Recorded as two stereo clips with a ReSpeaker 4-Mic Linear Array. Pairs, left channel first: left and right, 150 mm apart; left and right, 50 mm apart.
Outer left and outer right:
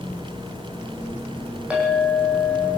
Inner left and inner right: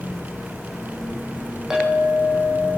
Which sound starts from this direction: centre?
A clink, at 1.7 s.